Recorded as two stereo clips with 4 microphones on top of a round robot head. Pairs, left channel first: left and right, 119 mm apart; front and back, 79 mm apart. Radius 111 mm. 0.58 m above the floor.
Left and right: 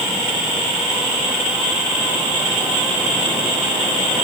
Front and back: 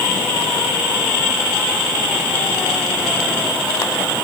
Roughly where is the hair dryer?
No hair dryer in this recording.